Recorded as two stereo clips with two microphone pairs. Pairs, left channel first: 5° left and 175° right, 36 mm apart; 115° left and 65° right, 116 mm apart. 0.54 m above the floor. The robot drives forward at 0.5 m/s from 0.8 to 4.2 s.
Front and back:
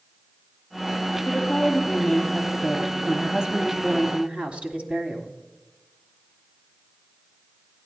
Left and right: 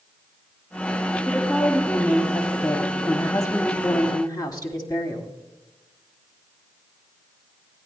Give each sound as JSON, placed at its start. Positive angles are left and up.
{"t": 1.2, "sound": "a woman speaking", "azimuth_deg": 30, "distance_m": 1.2}